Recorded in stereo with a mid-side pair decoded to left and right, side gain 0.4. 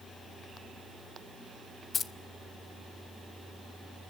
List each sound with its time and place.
1.9 s keys jangling: 50° left, 0.9 m